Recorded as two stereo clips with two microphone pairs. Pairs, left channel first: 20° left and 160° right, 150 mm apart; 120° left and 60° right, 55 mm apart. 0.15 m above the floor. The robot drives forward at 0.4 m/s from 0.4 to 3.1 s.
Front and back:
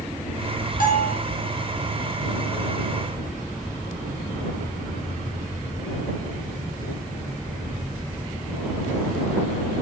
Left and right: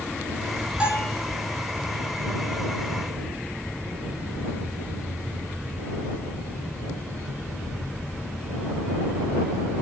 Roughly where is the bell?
Ahead.